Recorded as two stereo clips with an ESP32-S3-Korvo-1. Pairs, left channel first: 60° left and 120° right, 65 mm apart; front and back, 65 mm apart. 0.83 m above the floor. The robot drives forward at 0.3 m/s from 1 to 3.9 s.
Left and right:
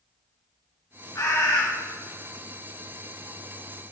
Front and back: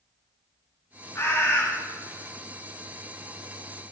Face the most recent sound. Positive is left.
turn(degrees=55)